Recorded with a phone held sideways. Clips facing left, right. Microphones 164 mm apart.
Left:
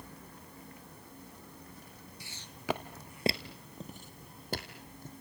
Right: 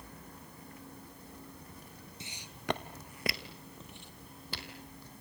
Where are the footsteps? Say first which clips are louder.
Even; 20° right (ahead or behind), 1.3 m; by 5.1 s 45° left (ahead or behind), 3.5 m.